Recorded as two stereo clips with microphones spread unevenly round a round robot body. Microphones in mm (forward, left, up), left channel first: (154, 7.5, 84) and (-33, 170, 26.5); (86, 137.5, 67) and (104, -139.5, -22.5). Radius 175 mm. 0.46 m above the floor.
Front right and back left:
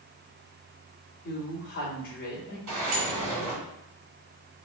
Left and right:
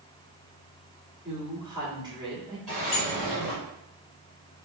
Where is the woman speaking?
85° right, 1.5 m.